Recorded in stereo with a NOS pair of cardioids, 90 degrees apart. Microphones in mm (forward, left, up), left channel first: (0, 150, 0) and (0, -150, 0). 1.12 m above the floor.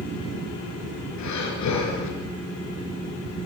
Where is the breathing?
65° left, 5 m.